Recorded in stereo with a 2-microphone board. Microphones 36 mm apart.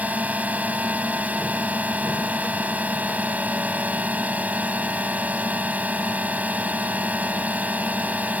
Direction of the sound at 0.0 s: 50° right (ahead or behind).